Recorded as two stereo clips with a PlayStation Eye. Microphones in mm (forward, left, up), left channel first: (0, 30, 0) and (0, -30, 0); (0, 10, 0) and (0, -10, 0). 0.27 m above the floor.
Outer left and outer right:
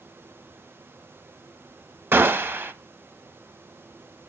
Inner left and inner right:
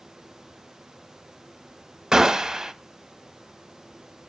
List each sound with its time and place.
2.1 s a gunshot: 40° right (ahead or behind), 0.9 m